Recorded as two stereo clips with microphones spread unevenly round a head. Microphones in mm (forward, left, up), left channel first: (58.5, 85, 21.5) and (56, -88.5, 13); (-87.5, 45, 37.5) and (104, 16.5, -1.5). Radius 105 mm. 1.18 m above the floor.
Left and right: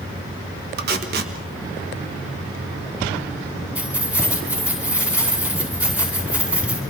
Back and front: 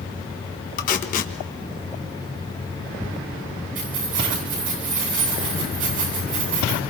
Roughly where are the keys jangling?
Ahead.